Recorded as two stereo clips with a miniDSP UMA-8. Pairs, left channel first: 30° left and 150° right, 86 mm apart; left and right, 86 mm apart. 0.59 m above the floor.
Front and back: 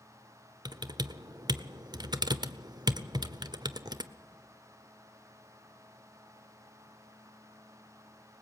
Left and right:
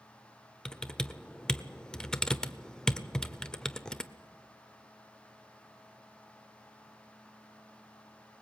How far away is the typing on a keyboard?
About 0.8 m.